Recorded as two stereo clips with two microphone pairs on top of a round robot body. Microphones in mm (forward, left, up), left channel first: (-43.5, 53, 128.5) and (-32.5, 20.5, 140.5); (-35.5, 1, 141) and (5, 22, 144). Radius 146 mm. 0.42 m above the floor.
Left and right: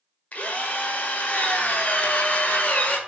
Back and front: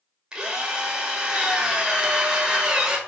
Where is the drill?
95° left, 1.7 m.